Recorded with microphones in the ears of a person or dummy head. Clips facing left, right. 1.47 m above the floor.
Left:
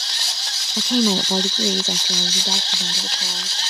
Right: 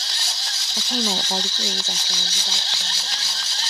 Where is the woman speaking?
70° left (ahead or behind); by 3.6 s 35° left (ahead or behind).